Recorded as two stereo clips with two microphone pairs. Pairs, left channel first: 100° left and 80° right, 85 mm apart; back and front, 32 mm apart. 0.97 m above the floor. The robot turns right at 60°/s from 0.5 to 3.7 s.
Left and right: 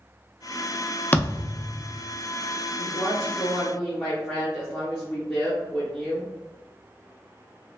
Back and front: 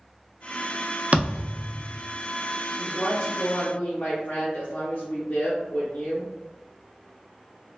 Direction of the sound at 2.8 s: 110° left.